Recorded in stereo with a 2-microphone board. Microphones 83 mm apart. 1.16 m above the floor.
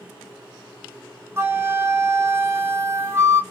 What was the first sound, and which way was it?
A flute, 30° right (ahead or behind).